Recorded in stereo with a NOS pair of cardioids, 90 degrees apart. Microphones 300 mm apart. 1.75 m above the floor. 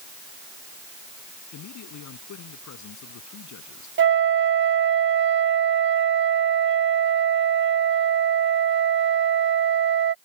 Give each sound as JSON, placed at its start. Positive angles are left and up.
{"t": 1.5, "sound": "a man speaking", "azimuth_deg": 70}
{"t": 4.0, "sound": "a flute", "azimuth_deg": -40}